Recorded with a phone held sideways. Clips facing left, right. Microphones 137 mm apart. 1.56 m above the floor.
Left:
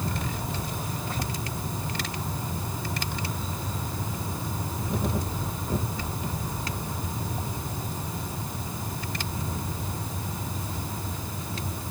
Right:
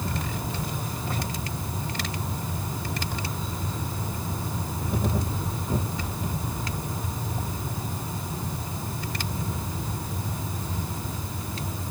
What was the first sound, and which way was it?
Only background noise.